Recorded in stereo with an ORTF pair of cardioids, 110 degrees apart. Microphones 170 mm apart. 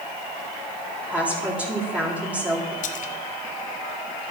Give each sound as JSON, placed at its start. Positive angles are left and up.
{"t": 1.1, "sound": "a woman speaking", "azimuth_deg": -10, "distance_m": 3.5}
{"t": 2.8, "sound": "a splash", "azimuth_deg": 50, "distance_m": 1.3}